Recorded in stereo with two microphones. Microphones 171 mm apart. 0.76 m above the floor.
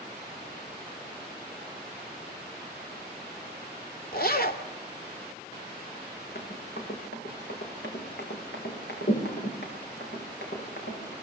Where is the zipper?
60° left (ahead or behind), 2.5 m.